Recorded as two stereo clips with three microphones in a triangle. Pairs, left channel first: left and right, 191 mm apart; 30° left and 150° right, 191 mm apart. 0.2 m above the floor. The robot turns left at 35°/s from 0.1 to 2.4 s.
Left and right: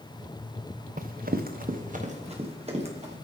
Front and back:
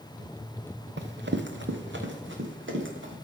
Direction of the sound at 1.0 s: 135° right.